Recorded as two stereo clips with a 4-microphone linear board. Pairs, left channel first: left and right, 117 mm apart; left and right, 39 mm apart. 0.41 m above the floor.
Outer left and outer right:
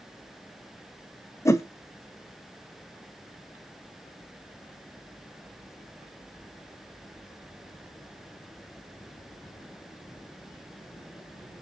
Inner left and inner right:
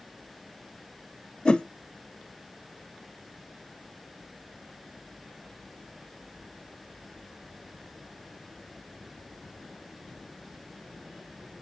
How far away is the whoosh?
About 0.6 m.